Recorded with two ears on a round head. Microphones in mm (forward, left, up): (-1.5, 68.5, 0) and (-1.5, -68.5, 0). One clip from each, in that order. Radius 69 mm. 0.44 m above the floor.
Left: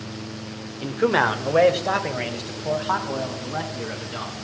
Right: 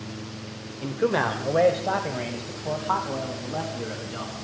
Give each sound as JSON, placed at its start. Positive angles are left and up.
{"t": 0.8, "sound": "a man speaking", "side_deg": 30, "distance_m": 1.1}